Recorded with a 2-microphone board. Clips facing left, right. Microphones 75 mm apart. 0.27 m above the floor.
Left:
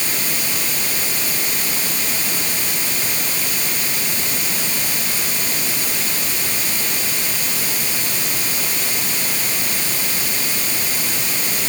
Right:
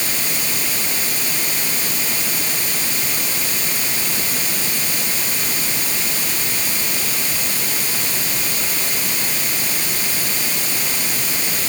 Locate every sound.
Only background noise.